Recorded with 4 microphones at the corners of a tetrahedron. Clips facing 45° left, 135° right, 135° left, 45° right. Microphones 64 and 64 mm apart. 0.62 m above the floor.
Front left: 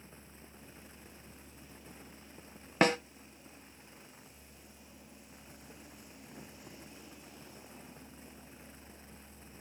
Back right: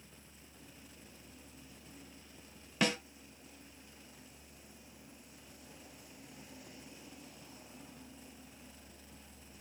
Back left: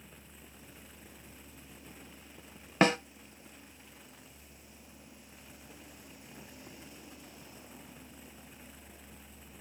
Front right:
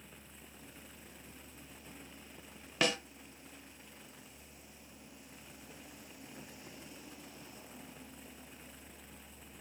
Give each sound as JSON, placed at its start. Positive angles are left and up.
{"t": 2.8, "sound": "a snare drum", "azimuth_deg": 85, "distance_m": 0.6}